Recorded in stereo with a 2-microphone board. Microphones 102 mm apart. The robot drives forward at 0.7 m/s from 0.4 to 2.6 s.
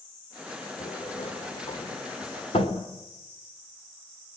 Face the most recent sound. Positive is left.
turn(degrees=70)  # may be behind; listen again after turning